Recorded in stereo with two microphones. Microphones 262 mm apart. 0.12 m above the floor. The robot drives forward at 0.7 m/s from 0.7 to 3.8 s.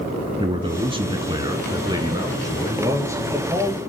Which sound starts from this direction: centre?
A man speaking, at 0.4 s.